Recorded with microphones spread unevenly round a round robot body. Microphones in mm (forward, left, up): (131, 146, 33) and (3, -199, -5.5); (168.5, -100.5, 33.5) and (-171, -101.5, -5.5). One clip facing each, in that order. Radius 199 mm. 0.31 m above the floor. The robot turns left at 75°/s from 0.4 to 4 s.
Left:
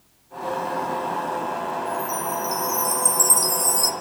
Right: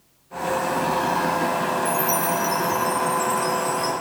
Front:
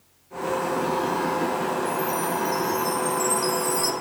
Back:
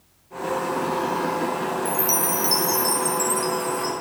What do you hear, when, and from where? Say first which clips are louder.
1.9 s a chime: right 4 dB, even; 150° right, 1.6 m; by 3.9 s 55° left, 1.6 m